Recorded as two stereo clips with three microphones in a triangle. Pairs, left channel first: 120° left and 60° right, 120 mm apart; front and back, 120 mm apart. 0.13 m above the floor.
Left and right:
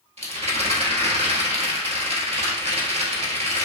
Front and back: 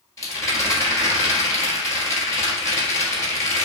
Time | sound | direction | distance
0.2 | a rattle | 60° right | 1.1 m